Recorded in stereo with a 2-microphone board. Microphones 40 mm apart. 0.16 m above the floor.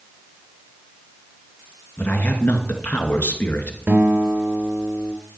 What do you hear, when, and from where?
2.0 s a man speaking: 50° left (ahead or behind), 2.0 m
3.9 s a guitar: 55° right (ahead or behind), 2 m